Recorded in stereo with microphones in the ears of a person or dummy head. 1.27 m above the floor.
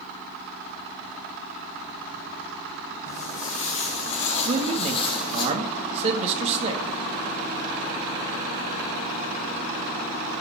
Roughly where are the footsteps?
Left.